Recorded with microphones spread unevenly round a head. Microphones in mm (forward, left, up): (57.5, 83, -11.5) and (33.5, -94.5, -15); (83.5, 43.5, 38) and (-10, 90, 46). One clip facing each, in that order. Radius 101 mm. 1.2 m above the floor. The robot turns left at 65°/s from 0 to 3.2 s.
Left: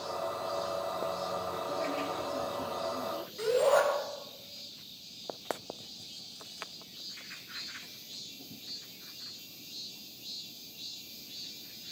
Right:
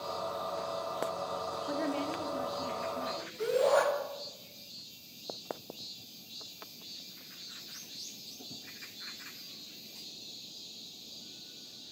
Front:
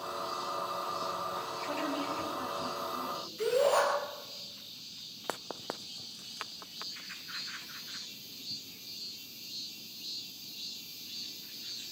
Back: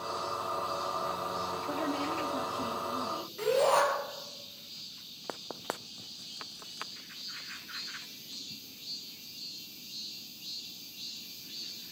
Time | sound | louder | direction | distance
1.7 | a woman speaking | right 3 dB, back 1 dB | 130° right | 3 m
3.4 | a shout | left 1 dB, back 1 dB | 130° left | 9 m